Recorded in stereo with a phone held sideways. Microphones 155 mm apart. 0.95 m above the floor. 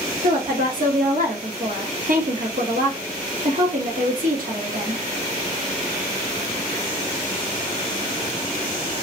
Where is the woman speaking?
65° right (ahead or behind), 1.1 m.